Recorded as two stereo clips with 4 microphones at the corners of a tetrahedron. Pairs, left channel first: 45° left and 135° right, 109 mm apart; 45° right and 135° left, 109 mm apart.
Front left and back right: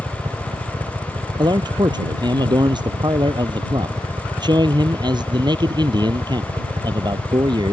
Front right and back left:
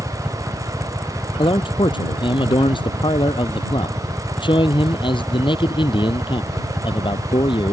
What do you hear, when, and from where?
0.0 s a helicopter: 145° right
1.4 s a man speaking: 85° right